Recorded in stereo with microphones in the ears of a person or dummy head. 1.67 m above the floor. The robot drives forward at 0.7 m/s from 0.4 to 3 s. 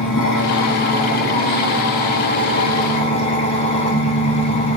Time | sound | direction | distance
0.0 | an engine running | 65° left (ahead or behind) | 2 m